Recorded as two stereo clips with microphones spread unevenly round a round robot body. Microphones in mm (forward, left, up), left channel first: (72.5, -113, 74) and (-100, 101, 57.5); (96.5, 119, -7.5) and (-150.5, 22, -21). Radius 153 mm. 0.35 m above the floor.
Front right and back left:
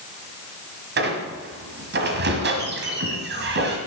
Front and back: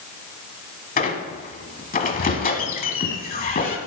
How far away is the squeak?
About 1.5 m.